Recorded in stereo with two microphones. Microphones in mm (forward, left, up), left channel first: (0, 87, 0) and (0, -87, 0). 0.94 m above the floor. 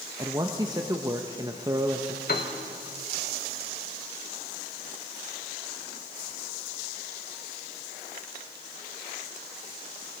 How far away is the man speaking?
About 0.7 m.